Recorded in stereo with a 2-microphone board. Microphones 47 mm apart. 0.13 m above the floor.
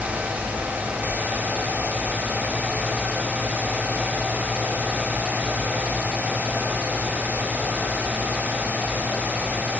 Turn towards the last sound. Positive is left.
No sound to turn to.